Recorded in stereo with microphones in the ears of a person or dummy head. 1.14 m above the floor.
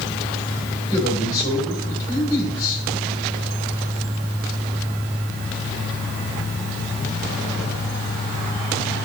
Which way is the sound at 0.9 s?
25° left (ahead or behind).